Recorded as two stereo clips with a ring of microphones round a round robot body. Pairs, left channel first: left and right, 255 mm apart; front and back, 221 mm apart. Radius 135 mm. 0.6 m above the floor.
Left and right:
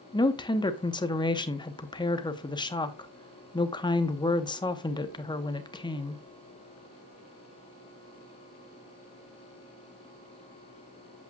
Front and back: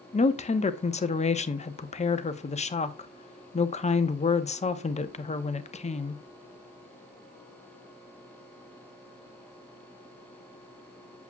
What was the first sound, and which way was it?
A woman speaking, 30° left.